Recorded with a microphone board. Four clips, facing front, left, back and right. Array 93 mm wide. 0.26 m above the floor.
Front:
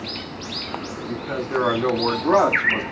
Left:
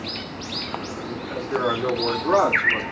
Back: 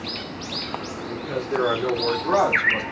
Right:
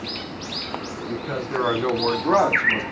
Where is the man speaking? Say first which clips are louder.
Even, front 1 dB; 50° right, 3 m; by 2.8 s 35° right, 1.8 m.